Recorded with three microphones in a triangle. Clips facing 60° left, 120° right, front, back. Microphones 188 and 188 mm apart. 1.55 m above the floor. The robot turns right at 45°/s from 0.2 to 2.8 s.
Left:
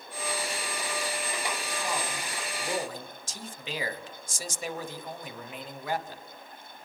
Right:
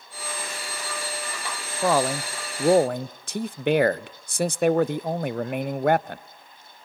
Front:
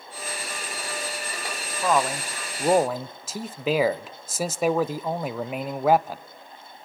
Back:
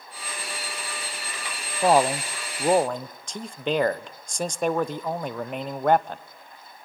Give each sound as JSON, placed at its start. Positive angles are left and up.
{"t": 1.8, "sound": "a man speaking", "azimuth_deg": -130, "distance_m": 0.6}